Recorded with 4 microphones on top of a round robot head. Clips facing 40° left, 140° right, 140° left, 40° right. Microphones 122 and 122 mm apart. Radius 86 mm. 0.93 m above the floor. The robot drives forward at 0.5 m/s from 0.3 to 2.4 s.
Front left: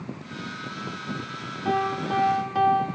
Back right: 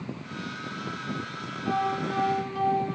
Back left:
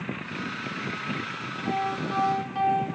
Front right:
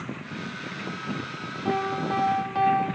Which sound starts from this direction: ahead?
A piano, at 1.6 s.